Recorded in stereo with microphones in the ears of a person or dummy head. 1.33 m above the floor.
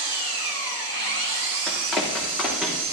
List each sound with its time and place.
0.0 s an engine running: 85° right, 3.5 m
1.7 s running footsteps: centre (ahead or behind), 3 m